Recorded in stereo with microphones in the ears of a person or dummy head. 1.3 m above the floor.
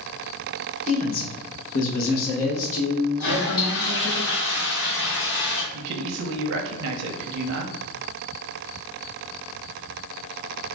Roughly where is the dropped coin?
No dropped coin in this recording.